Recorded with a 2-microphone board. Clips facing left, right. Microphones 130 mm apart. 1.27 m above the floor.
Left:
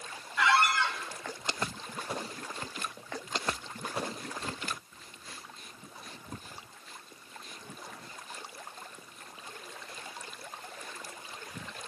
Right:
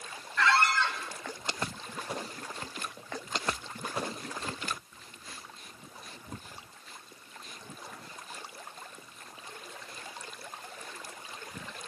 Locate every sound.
0.4 s a squeak: 15° left (ahead or behind), 3 m